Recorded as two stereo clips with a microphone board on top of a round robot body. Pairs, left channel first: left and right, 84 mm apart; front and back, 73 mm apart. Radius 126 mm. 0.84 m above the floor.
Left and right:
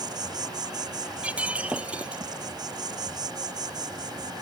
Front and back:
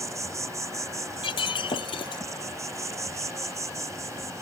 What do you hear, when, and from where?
0.0 s an insect: 130° right
1.2 s breaking glass: 15° right